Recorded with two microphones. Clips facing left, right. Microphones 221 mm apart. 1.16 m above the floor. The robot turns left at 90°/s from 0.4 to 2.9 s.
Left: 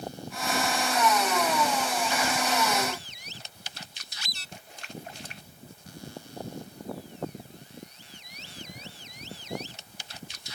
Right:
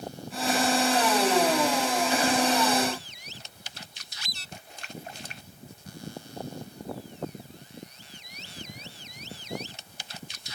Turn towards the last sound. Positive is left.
No sound to turn to.